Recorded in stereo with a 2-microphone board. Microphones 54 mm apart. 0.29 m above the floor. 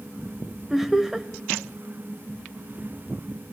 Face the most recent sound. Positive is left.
turn(degrees=-5)  # may be behind; listen again after turning